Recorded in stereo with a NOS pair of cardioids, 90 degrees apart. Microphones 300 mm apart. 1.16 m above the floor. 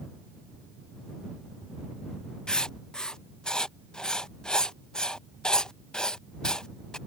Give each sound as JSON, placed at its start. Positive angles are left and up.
{"t": 2.5, "sound": "writing", "azimuth_deg": 5}